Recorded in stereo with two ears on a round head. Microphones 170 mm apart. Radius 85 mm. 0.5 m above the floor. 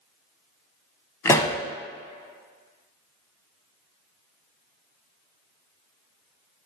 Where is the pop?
15° left (ahead or behind), 0.6 m.